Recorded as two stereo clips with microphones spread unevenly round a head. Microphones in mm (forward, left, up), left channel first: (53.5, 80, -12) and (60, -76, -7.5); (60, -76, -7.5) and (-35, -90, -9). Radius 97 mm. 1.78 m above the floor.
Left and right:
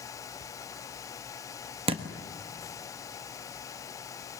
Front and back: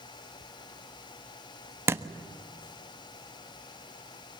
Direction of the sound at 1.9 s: 120° right.